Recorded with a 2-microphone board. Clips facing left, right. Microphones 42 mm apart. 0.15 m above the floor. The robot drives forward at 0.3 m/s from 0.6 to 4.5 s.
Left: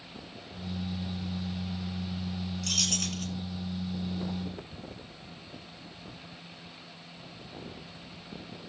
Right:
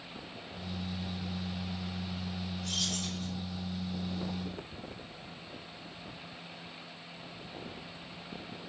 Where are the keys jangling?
65° left (ahead or behind), 2.5 m.